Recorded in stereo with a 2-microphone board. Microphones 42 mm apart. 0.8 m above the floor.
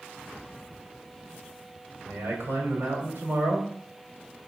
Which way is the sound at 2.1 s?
65° right (ahead or behind).